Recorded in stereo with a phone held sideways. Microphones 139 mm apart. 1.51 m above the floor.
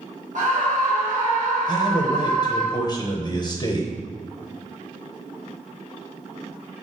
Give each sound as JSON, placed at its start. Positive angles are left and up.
{"t": 0.3, "sound": "a scream", "side_deg": -60, "distance_m": 2.0}
{"t": 1.7, "sound": "a man speaking", "side_deg": 30, "distance_m": 1.0}